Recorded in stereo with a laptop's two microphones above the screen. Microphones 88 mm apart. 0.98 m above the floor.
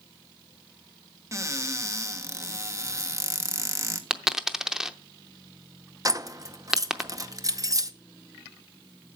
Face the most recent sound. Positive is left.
turn(degrees=-40)  # may be behind; listen again after turning